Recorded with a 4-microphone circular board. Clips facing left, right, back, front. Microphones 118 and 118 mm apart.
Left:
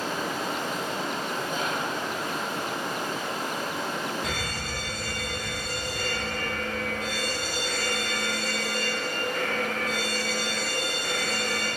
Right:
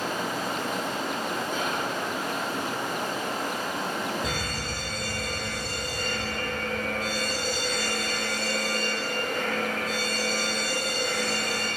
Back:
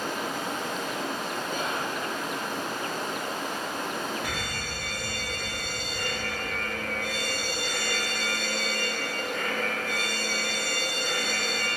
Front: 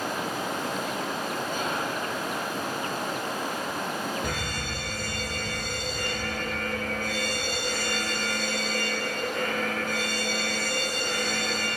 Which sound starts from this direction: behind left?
Whispering, at 1.5 s.